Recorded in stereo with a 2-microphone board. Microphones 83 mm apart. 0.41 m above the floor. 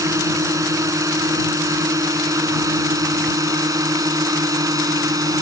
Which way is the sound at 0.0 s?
40° right (ahead or behind).